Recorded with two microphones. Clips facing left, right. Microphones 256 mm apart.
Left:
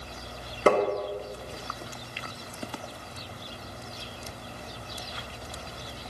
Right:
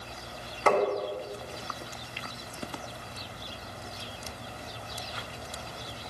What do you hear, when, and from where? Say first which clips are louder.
0.7 s tapping: left 3 dB; 40° left (ahead or behind), 1.3 m